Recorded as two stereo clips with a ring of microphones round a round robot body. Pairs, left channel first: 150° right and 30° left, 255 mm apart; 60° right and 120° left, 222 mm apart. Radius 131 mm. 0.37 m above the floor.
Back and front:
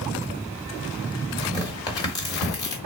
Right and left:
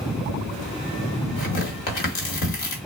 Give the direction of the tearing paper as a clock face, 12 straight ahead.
3 o'clock.